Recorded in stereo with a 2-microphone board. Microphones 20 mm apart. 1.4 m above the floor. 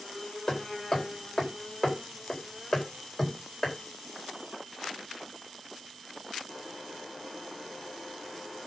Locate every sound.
0.5 s hammering: 20° left (ahead or behind), 4 m